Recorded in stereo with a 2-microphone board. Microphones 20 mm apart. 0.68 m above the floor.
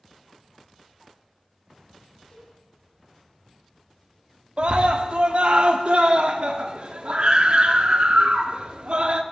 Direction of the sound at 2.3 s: 60° left (ahead or behind).